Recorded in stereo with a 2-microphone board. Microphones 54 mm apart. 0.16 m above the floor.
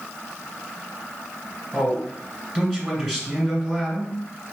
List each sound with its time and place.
1.7 s a man speaking: 10° left (ahead or behind), 2.5 m